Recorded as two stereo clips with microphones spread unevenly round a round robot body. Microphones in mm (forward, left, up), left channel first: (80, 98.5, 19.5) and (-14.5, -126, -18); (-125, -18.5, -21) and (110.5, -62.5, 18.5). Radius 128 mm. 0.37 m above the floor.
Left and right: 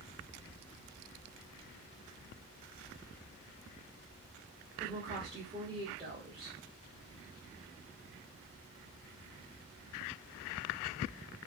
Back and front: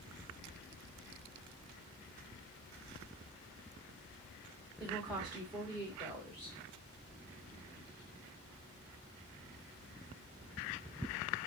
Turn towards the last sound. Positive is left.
turn(degrees=-110)